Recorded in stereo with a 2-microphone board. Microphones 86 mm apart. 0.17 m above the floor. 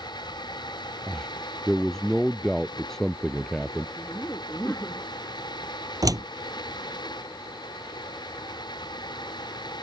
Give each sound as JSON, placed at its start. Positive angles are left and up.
{"t": 1.1, "sound": "a man speaking", "side_deg": 5}
{"t": 4.0, "sound": "laughter", "side_deg": 25}
{"t": 6.0, "sound": "a door slam", "side_deg": -45}